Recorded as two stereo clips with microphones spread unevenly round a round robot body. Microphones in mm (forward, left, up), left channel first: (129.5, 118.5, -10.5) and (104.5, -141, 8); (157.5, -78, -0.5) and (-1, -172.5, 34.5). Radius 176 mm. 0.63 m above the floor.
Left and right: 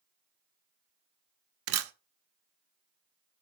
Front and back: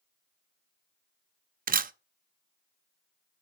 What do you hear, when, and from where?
1.7 s a camera shutter: 105° right, 0.5 m